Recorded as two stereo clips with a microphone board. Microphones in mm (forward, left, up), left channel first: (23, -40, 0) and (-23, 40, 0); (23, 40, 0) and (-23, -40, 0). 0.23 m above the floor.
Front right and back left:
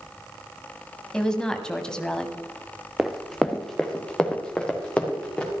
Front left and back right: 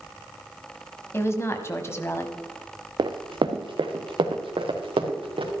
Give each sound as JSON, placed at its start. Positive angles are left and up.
{"t": 1.1, "sound": "a woman speaking", "azimuth_deg": 20, "distance_m": 1.2}
{"t": 3.0, "sound": "running footsteps", "azimuth_deg": -155, "distance_m": 0.8}